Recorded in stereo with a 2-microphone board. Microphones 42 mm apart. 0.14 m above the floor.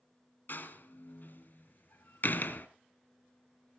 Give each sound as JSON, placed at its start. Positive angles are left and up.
{"t": 0.5, "sound": "a door slam", "side_deg": 45, "distance_m": 1.4}